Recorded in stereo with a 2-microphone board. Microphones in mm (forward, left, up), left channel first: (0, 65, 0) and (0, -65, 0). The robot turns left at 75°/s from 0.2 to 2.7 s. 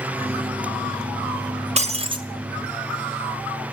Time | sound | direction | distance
1.8 | breaking glass | 105° right | 0.8 m